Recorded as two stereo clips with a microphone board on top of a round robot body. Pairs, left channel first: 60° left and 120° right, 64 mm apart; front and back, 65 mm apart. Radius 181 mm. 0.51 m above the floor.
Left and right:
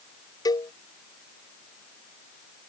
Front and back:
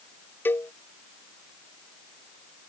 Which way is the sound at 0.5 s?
55° left.